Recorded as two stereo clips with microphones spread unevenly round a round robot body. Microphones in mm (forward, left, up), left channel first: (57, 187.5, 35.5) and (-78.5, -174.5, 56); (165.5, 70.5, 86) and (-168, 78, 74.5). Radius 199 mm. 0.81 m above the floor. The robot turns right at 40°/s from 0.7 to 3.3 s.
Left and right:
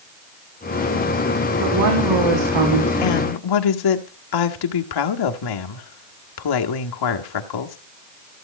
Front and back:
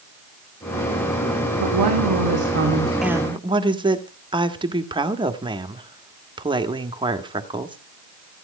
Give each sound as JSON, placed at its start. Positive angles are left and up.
{"t": 1.6, "sound": "a woman speaking", "azimuth_deg": -165, "distance_m": 3.0}
{"t": 3.0, "sound": "a woman speaking", "azimuth_deg": 90, "distance_m": 1.6}